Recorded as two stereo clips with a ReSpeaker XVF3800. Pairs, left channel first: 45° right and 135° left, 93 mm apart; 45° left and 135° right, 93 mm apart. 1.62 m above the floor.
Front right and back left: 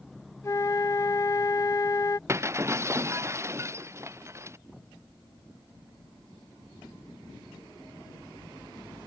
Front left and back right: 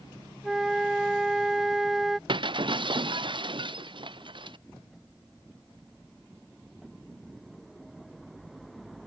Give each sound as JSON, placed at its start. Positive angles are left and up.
{"t": 0.4, "sound": "a flute", "azimuth_deg": -50}
{"t": 2.3, "sound": "breaking glass", "azimuth_deg": -165}